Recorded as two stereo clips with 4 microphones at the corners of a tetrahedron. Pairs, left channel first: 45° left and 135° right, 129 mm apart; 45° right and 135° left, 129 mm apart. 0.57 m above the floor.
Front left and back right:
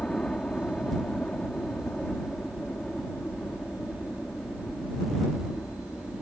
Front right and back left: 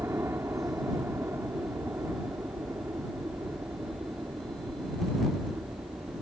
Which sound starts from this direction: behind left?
A helicopter, at 0.0 s.